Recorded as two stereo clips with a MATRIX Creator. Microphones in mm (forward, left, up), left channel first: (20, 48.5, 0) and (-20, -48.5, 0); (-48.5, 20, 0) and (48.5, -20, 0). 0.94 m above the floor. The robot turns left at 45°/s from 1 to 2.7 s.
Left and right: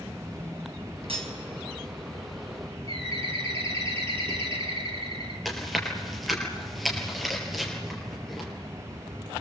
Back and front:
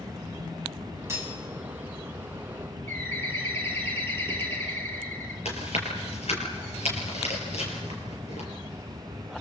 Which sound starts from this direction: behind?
Chewing, at 5.5 s.